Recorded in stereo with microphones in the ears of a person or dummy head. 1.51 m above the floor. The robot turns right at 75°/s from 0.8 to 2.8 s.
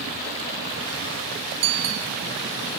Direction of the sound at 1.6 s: 65° right.